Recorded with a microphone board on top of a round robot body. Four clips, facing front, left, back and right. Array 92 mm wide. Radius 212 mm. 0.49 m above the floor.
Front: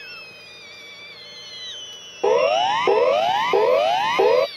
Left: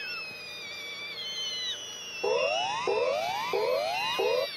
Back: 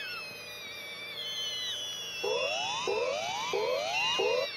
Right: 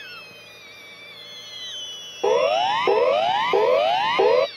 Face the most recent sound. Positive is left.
turn(degrees=-40)